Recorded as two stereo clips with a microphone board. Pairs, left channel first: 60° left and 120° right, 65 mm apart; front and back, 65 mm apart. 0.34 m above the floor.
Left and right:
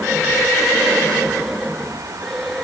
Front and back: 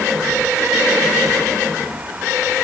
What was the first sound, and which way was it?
Only background noise.